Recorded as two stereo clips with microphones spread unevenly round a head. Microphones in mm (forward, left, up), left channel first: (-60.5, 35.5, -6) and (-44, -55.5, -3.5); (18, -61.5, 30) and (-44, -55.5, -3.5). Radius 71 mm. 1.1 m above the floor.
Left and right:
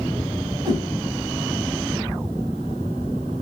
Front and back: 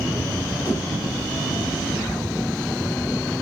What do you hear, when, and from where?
0.7 s a whoosh: 15° right, 2 m